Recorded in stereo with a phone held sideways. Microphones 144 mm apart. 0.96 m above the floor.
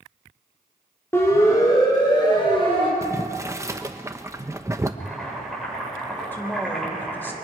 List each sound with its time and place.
1.1 s a siren: 15° left (ahead or behind), 4.5 m; by 2.9 s 40° left (ahead or behind), 5.5 m
3.0 s boiling: 20° right (ahead or behind), 1.0 m
5.0 s boiling: 5° left (ahead or behind), 9 m
6.3 s a woman speaking: 10° left (ahead or behind), 3.5 m